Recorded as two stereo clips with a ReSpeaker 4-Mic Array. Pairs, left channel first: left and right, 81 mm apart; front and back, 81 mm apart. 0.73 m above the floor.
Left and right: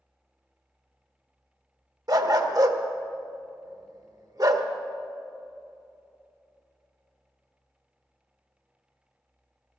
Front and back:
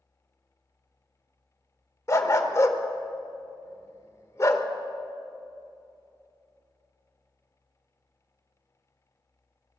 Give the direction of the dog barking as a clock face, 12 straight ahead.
2 o'clock.